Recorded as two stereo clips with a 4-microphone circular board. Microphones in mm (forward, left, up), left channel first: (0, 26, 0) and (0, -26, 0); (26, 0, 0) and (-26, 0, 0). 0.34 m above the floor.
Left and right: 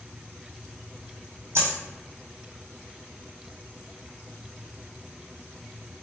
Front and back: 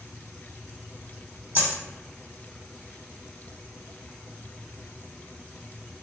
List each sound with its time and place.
1.6 s a dropped coin: 130° right, 2.0 m